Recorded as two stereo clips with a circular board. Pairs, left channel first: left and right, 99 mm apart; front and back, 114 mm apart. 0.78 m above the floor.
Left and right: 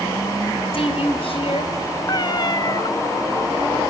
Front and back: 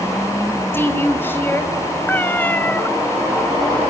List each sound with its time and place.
0.7 s a woman speaking: 70° left, 4 m
2.1 s a cat meowing: 70° left, 0.6 m